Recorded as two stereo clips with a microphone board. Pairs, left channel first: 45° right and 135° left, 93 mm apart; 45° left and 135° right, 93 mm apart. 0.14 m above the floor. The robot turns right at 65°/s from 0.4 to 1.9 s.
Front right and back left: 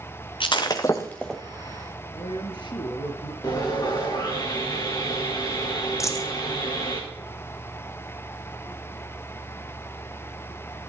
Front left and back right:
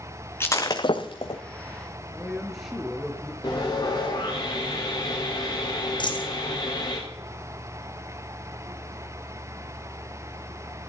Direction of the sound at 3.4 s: Straight ahead.